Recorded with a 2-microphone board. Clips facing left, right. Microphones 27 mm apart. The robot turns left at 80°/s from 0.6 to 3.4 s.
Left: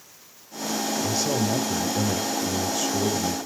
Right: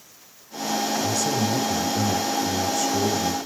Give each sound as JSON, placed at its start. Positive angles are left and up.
{"t": 1.0, "sound": "a man speaking", "azimuth_deg": 155, "distance_m": 2.0}